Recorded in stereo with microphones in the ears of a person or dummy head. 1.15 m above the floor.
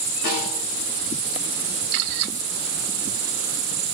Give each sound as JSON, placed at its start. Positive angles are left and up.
{"t": 0.2, "sound": "a snare drum", "side_deg": 50, "distance_m": 6.5}